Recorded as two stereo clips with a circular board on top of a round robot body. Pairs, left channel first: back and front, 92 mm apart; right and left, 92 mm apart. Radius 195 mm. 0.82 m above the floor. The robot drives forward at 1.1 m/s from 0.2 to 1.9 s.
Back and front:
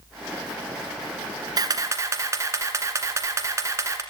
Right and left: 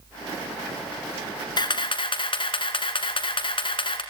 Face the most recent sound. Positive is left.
turn(degrees=-60)